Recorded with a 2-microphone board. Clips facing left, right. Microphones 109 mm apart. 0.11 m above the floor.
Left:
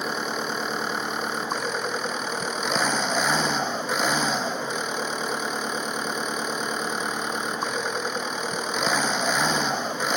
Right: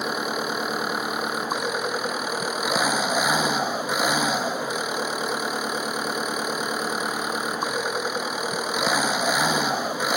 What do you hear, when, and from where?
0.0 s an engine running: 10° right (ahead or behind)